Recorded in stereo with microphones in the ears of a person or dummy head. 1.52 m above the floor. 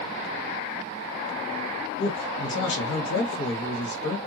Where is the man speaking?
70° left (ahead or behind), 2 m.